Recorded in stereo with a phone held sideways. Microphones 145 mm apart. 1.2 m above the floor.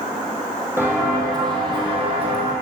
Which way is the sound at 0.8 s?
15° right (ahead or behind).